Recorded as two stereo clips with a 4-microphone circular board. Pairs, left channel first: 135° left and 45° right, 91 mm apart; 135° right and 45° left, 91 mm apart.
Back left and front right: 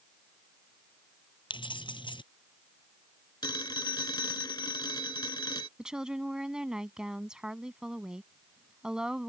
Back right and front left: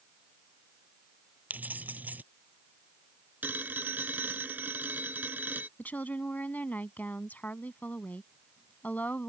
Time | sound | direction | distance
1.5 | keys jangling | 115° left | ?
3.4 | a phone ringing | 110° left | ?
5.8 | a woman speaking | 110° right | ?